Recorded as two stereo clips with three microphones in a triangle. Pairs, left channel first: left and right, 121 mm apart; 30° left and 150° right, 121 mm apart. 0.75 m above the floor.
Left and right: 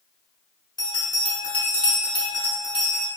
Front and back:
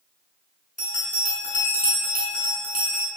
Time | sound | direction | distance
0.8 | a bell | 35° left | 1.3 m